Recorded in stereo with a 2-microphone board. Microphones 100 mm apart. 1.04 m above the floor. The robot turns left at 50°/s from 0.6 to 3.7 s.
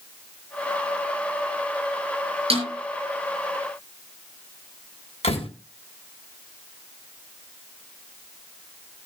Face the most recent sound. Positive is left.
turn(degrees=80)